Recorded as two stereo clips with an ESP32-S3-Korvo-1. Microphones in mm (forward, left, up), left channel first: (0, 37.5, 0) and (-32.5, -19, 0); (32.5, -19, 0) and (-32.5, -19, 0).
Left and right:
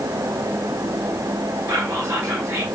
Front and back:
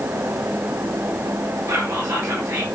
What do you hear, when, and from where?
1.7 s whispering: 155° right, 2.5 m